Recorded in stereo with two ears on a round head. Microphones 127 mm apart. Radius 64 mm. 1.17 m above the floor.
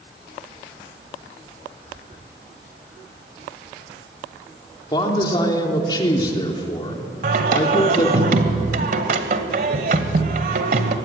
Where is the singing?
65° right (ahead or behind), 1.9 m.